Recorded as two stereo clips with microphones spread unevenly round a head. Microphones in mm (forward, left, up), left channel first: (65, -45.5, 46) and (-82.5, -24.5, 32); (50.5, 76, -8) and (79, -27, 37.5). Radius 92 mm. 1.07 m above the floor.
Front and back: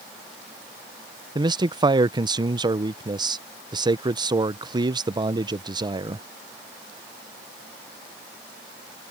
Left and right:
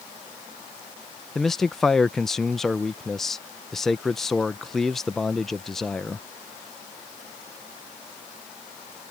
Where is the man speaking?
150° left.